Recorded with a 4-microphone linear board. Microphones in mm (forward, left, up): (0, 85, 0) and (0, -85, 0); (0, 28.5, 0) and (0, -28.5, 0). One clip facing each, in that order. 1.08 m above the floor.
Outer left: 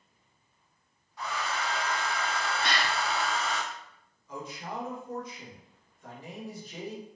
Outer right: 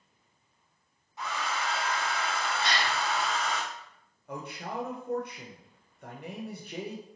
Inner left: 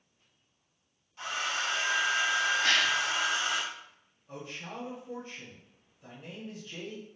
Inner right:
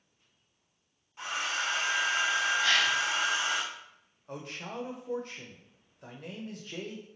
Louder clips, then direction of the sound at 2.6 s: Even, inner right 1 dB; 55° left (ahead or behind).